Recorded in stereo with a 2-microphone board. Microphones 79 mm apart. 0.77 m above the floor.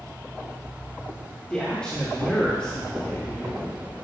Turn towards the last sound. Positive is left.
turn(degrees=15)  # may be behind; listen again after turning